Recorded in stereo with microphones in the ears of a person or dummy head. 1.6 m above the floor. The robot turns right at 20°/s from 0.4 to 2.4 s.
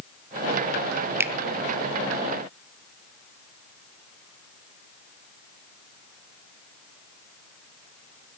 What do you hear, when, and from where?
1.2 s a finger snap: 10° right (ahead or behind), 0.7 m